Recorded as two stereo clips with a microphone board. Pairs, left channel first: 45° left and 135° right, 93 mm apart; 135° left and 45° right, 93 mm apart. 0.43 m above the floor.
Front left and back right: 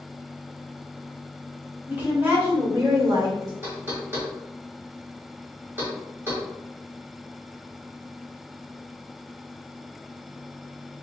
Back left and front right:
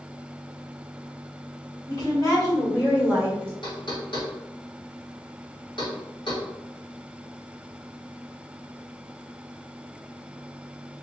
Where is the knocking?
160° left, 1.8 m.